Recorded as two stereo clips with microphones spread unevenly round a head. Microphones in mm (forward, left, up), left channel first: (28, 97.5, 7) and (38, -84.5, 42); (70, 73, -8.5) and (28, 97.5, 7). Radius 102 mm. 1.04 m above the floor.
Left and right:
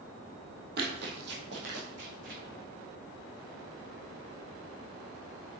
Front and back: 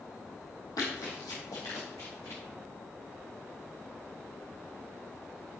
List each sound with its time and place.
0.8 s running footsteps: 70° right, 2.5 m; by 2.4 s 75° right, 4.5 m